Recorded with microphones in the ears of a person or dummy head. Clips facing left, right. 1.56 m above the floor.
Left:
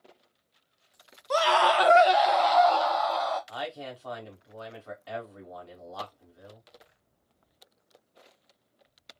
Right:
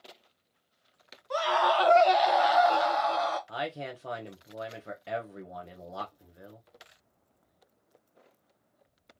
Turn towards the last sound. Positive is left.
turn(degrees=-25)  # may be behind; listen again after turning